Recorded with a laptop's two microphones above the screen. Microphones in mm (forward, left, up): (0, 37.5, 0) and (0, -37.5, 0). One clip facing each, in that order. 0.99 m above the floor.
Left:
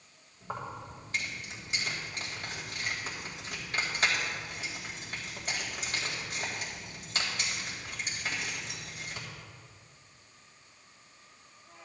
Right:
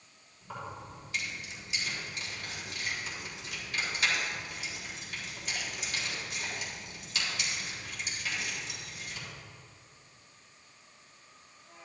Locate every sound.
0.4 s keys jangling: 40° left (ahead or behind), 3.5 m